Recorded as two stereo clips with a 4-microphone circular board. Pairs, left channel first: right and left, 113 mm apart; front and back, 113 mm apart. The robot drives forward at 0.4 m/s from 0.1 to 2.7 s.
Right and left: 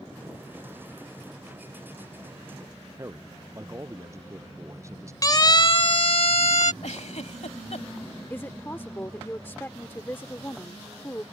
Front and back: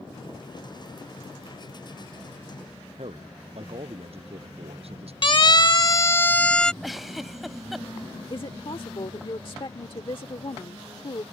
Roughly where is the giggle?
Right.